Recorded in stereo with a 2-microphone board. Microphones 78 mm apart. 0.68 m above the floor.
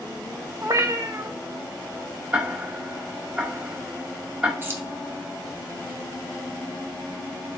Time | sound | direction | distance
0.6 | a cat meowing | 40° right (ahead or behind) | 0.5 m
2.3 | ticking | 15° right (ahead or behind) | 1.5 m
4.6 | keys jangling | 30° right (ahead or behind) | 0.9 m